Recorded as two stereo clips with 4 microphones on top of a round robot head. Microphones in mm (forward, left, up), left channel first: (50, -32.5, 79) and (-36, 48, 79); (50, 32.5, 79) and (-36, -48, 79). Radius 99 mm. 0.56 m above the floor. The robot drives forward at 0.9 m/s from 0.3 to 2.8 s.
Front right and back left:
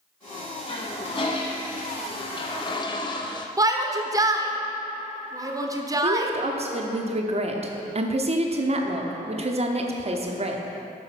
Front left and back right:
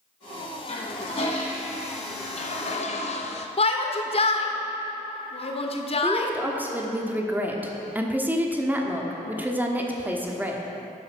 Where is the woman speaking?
150° left, 1.2 m.